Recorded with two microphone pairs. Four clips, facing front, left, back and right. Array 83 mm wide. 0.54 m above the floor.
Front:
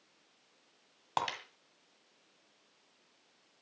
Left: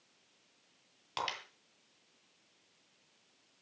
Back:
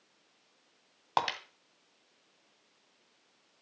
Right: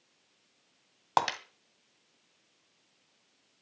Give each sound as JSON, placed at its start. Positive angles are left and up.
{"t": 1.2, "sound": "breaking glass", "azimuth_deg": -110, "distance_m": 1.7}